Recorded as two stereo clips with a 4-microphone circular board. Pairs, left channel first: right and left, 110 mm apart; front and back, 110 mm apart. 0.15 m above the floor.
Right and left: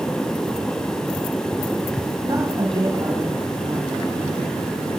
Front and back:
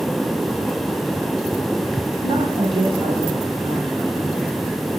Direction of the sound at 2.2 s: 140° left.